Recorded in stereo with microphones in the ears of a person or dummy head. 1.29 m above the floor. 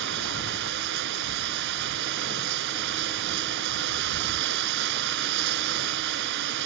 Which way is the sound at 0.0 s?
60° right (ahead or behind).